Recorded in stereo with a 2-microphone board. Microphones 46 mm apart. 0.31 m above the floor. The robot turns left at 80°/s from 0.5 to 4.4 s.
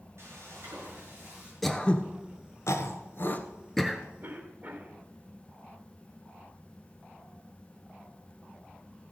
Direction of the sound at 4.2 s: 45° right (ahead or behind).